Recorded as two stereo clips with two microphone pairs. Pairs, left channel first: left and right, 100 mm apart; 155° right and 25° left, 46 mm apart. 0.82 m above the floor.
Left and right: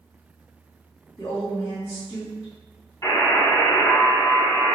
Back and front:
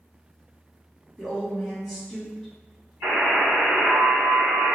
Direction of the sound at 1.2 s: 110° left.